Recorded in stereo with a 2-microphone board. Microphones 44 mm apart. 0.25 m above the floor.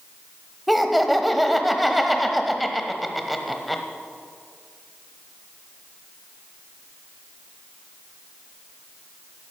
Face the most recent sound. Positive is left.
turn(degrees=0)  # may be behind; listen again after turning